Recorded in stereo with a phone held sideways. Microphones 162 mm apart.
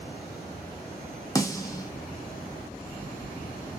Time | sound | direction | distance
1.4 | a snare drum | 20° left (ahead or behind) | 0.6 m